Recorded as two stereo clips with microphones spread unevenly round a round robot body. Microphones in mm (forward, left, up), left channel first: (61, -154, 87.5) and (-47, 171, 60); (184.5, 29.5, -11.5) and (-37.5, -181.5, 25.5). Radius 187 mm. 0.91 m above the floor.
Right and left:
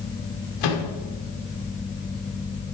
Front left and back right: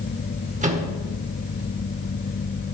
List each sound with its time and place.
0.6 s a microwave: 70° right, 2 m